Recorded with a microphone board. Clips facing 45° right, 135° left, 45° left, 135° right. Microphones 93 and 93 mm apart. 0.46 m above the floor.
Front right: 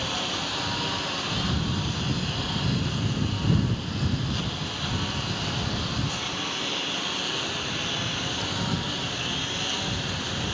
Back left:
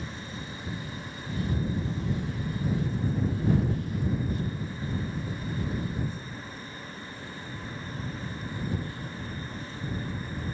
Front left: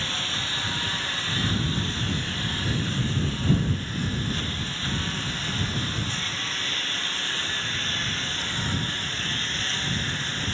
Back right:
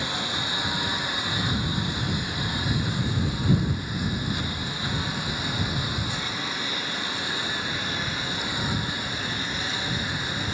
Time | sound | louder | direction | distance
0.0 | a lawn mower | front right 8 dB, back right 3 dB | 60° right | ?